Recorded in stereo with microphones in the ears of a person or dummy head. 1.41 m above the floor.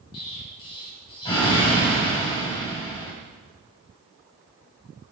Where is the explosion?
25° left (ahead or behind), 1.3 m.